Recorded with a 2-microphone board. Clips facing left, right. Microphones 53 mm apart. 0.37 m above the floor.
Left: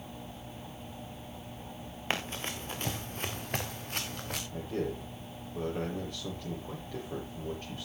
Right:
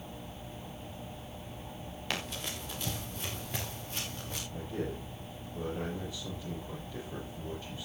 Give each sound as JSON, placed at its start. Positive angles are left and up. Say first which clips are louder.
{"t": 2.1, "sound": "running footsteps", "louder": "left 3 dB", "side_deg": 30, "distance_m": 2.5}
{"t": 4.5, "sound": "a man speaking", "louder": "left 3 dB", "side_deg": 55, "distance_m": 8.5}